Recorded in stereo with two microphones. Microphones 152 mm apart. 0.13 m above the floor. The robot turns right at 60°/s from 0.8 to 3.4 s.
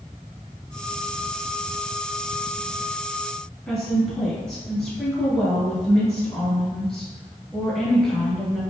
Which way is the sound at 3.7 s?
5° left (ahead or behind).